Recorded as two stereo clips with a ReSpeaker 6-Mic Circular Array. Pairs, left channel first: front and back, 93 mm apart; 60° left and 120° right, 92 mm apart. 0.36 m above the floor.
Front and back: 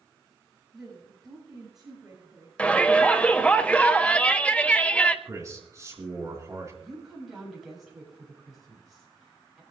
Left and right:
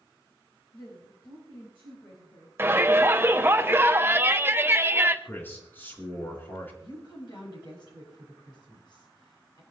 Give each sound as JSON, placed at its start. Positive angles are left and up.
{"t": 0.7, "sound": "a woman speaking", "azimuth_deg": 95, "distance_m": 7.5}
{"t": 2.6, "sound": "a shout", "azimuth_deg": -70, "distance_m": 1.1}
{"t": 5.2, "sound": "a man speaking", "azimuth_deg": 125, "distance_m": 3.5}
{"t": 6.8, "sound": "a woman speaking", "azimuth_deg": 90, "distance_m": 8.0}